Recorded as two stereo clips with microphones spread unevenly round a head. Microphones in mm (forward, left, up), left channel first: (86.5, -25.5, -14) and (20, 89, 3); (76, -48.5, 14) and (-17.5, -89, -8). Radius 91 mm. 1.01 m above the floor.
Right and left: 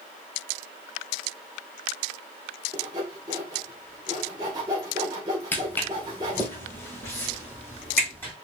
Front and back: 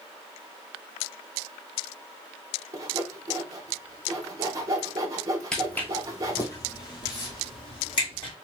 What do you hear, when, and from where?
2.7 s sawing: 175° right, 0.7 m
5.5 s footsteps: 10° left, 1.0 m; by 8.3 s 15° left, 2.5 m